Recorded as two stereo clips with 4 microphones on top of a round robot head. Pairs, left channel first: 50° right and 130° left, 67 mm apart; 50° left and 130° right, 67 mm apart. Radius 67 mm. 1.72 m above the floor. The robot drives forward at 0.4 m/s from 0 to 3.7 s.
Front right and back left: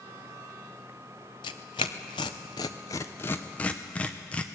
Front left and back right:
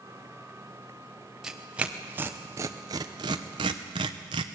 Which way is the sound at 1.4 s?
45° right.